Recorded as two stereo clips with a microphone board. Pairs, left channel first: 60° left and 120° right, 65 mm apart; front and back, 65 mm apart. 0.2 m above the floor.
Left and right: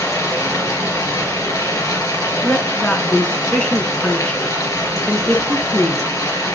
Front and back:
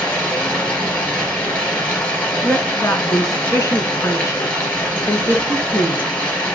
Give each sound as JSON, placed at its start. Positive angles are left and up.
{"t": 0.0, "sound": "running water", "azimuth_deg": 65, "distance_m": 3.5}
{"t": 2.4, "sound": "a woman speaking", "azimuth_deg": 0, "distance_m": 1.9}